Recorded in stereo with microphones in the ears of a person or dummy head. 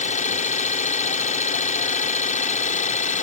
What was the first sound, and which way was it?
An engine running, 40° left (ahead or behind).